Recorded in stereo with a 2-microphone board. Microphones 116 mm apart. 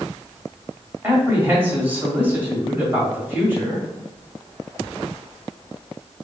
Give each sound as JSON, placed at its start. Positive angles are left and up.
{"t": 1.0, "sound": "a man speaking", "side_deg": -20, "distance_m": 1.6}